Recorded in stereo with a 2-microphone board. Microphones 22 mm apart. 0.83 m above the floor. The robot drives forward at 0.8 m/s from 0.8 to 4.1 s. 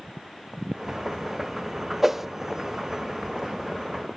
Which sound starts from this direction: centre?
A whoosh, at 2.0 s.